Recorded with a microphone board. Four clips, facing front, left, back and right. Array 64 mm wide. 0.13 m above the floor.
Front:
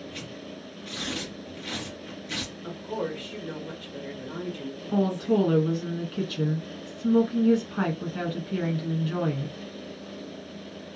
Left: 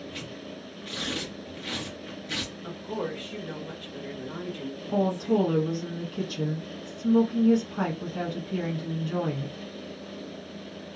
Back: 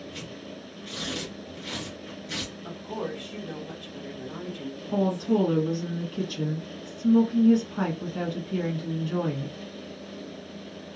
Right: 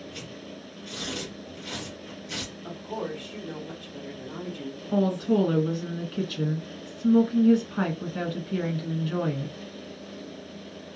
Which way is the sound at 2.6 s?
50° left.